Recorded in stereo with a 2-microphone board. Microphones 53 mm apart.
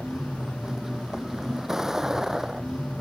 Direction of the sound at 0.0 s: 10° right (ahead or behind).